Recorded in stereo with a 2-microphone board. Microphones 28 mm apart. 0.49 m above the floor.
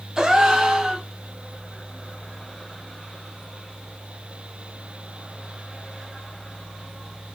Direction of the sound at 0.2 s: 20° right (ahead or behind).